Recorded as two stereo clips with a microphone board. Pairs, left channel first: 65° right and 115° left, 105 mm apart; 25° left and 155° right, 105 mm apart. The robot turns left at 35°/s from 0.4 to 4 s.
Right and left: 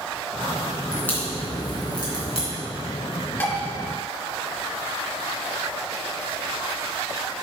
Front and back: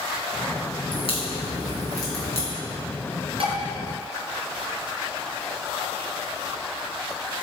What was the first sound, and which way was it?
A crack, 10° left.